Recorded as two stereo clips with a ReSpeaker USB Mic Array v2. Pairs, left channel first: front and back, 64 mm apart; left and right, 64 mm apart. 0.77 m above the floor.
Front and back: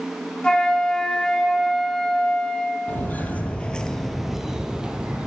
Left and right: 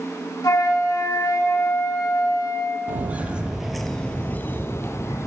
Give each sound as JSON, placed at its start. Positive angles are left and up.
{"t": 0.4, "sound": "a flute", "azimuth_deg": 75, "distance_m": 1.3}
{"t": 2.9, "sound": "footsteps", "azimuth_deg": -45, "distance_m": 1.0}